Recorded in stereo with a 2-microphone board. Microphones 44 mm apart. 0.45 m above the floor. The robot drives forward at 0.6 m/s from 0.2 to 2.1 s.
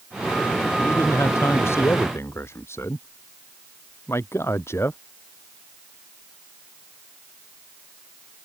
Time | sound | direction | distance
0.8 | a man speaking | 80° left | ?